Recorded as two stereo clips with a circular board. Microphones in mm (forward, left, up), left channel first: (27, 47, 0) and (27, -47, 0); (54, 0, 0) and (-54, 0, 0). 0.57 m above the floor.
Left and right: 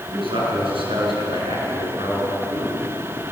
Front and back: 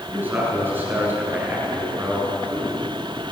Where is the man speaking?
110° right, 7.5 m.